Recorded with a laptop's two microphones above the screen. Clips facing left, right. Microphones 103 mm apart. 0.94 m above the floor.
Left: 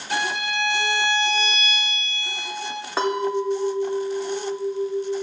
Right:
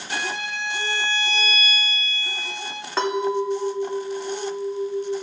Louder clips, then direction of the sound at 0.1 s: Left 4 dB; 55° left (ahead or behind).